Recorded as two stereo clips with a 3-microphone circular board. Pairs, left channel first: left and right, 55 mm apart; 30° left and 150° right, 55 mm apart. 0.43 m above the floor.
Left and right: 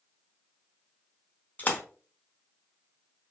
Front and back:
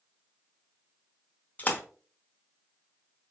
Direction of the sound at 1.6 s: 60° left.